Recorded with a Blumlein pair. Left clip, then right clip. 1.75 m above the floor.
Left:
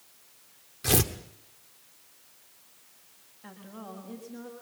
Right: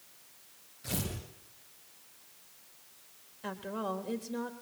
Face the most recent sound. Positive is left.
turn(degrees=-65)